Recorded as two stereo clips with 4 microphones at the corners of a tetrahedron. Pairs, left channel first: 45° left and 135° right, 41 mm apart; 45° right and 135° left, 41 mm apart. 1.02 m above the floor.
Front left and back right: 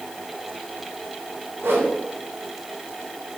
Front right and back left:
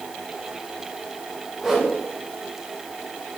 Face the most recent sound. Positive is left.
turn(degrees=-140)